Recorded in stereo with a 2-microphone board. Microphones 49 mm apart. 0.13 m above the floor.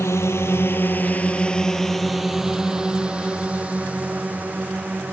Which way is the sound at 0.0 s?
65° left (ahead or behind).